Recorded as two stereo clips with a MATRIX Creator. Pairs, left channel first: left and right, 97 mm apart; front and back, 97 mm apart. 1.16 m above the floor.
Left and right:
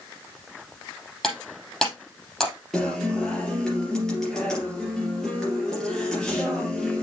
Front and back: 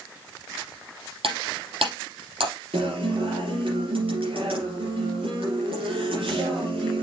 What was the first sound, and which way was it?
Breaking glass, 175° left.